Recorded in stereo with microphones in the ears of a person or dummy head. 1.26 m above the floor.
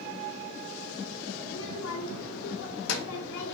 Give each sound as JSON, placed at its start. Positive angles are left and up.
{"t": 1.4, "sound": "a child speaking", "side_deg": 75, "distance_m": 1.5}